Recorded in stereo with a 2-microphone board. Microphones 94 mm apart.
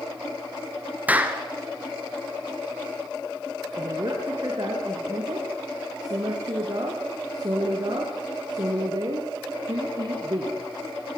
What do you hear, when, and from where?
1.1 s a clap: 15° right (ahead or behind), 2.0 m
3.8 s a woman speaking: 45° right (ahead or behind), 4 m